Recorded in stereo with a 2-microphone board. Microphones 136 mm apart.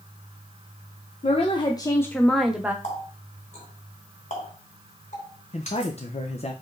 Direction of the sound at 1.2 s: 45° left (ahead or behind).